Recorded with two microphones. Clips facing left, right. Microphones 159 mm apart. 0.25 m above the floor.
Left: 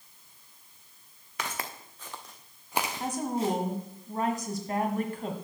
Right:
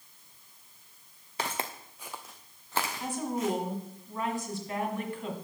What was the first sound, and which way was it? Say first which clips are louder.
Footsteps: right 2 dB; 35° right (ahead or behind).